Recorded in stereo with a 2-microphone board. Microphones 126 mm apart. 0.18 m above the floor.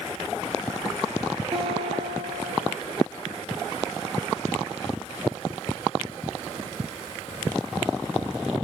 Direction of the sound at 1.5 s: 50° right (ahead or behind).